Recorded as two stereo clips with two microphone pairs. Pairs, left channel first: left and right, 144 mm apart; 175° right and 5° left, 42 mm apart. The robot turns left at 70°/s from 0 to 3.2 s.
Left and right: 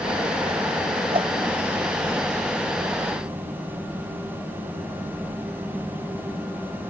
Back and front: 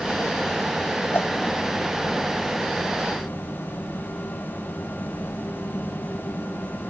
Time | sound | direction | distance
1.1 | a whoosh | 140° right | ?